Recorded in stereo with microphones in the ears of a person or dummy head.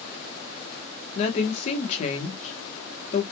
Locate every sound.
1.1 s a woman speaking: 35° left (ahead or behind), 1.3 m